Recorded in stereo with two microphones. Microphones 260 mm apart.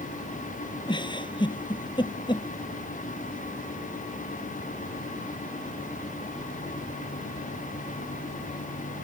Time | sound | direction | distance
0.9 | a giggle | 20° left (ahead or behind) | ?